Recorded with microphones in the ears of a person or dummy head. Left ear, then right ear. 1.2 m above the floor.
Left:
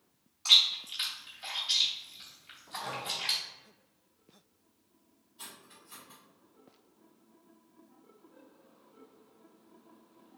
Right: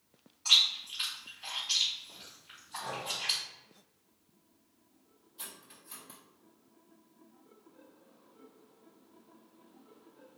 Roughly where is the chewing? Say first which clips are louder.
Left 2 dB; left.